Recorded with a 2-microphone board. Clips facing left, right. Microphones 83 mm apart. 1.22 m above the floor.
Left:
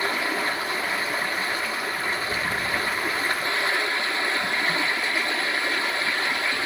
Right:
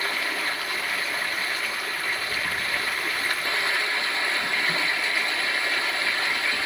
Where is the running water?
25° left (ahead or behind), 1.6 m.